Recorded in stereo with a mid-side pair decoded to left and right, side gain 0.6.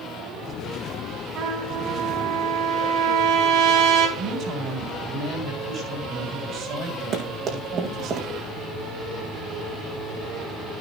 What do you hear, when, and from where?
1.4 s a trumpet: 65° right, 4 m
4.2 s a woman speaking: 55° right, 6.5 m
7.1 s running footsteps: 50° right, 4 m